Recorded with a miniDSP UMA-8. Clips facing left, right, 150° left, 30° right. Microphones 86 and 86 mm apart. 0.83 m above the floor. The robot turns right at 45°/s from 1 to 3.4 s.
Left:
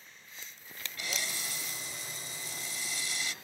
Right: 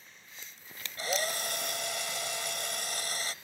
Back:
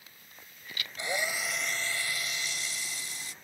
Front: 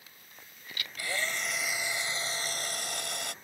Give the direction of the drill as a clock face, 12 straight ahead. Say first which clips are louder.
Right 7 dB, back 2 dB; 5 o'clock.